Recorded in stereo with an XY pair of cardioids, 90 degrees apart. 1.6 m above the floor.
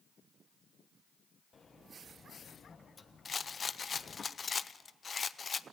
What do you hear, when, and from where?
1.5 s a sliding door: 40° left, 1.1 m
3.2 s a rattle: 40° left, 0.6 m